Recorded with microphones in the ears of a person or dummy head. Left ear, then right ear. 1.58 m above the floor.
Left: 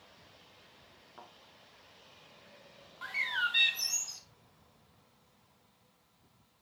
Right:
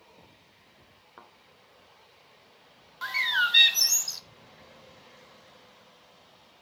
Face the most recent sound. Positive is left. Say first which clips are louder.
# right 7 dB
turn(degrees=-25)  # may be behind; listen again after turning